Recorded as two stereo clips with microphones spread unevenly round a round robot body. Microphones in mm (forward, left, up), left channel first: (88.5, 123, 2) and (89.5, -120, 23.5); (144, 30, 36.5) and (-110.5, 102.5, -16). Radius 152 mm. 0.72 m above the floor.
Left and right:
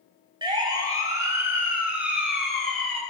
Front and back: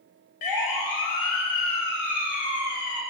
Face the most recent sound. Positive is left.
turn(degrees=5)